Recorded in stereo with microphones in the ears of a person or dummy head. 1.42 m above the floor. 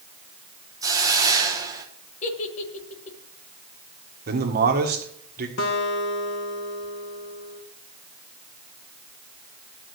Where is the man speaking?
45° right (ahead or behind), 1.7 m.